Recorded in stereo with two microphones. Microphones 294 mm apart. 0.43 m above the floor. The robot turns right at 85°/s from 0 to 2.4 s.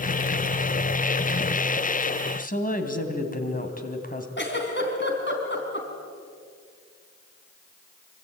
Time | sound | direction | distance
2.4 | a woman speaking | 25° left (ahead or behind) | 3 m
4.4 | a giggle | 40° left (ahead or behind) | 4 m